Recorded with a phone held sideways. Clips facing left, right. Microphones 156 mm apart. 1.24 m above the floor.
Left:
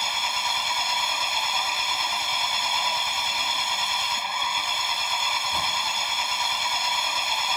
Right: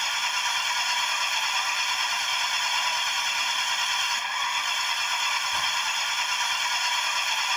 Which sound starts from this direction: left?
An engine running, at 0.0 s.